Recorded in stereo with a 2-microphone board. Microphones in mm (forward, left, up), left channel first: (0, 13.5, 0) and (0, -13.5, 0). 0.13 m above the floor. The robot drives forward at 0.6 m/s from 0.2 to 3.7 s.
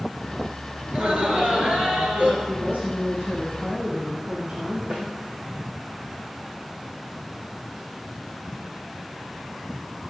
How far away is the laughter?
About 2.5 m.